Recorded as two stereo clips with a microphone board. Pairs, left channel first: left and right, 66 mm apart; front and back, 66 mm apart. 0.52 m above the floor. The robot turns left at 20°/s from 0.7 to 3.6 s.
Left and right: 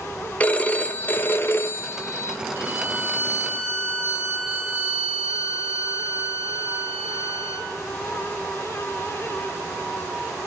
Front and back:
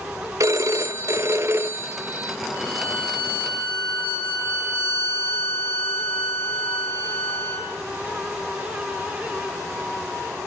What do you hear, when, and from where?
0.4 s a phone ringing: 155° left, 0.6 m; by 2.4 s 120° left, 0.6 m
2.5 s a violin: 40° right, 5 m; by 7.7 s 60° right, 5 m